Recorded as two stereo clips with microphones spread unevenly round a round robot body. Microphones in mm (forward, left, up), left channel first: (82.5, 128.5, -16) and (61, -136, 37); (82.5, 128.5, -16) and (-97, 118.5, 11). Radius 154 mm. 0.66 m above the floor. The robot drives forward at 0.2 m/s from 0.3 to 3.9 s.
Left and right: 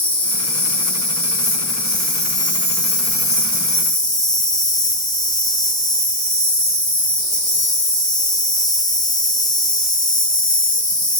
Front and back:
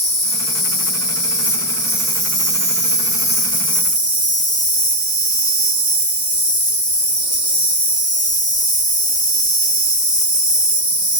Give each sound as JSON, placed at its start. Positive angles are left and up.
{"t": 0.0, "sound": "an insect", "azimuth_deg": 55, "distance_m": 1.6}